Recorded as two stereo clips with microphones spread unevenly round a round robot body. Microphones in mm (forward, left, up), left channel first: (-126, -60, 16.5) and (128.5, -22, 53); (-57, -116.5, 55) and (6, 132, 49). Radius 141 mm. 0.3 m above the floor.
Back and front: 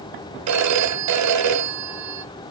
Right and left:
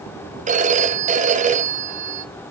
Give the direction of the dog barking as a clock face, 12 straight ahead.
I don't hear a dog barking.